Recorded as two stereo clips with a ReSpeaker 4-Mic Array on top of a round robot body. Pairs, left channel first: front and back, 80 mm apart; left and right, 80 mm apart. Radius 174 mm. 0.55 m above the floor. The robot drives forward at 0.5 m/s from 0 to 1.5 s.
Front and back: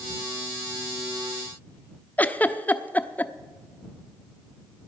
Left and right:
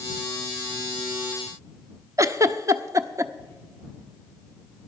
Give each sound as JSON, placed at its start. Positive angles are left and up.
{"t": 2.2, "sound": "a giggle", "azimuth_deg": -65, "distance_m": 0.9}